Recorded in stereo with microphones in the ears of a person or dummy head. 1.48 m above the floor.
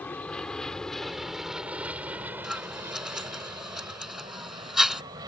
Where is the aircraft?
10° left (ahead or behind); by 5.3 s 20° right (ahead or behind).